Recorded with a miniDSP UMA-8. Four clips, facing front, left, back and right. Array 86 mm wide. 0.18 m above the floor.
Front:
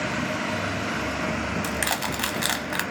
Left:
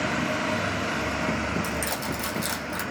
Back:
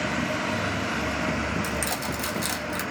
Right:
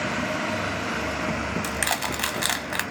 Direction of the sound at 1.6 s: 50° right.